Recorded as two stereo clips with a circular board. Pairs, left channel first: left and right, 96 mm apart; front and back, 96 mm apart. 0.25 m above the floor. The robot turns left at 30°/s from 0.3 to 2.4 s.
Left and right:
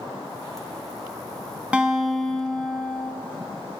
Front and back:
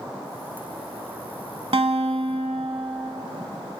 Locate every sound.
1.7 s a guitar: 165° right, 0.6 m; by 3.1 s 175° left, 0.6 m